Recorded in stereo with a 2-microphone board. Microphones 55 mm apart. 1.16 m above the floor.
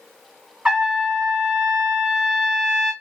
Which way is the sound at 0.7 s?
15° right (ahead or behind).